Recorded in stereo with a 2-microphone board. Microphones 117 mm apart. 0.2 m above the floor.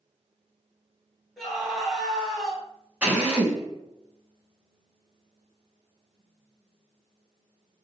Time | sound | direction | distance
1.4 | a scream | centre (ahead or behind) | 1.7 m
3.0 | a drill | 10° right (ahead or behind) | 1.3 m